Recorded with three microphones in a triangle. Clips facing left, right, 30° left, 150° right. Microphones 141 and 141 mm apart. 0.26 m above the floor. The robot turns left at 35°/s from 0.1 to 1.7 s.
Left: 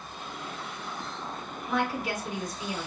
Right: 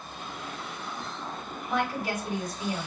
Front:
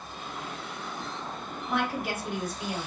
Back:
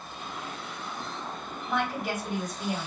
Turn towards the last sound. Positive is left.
turn(degrees=-60)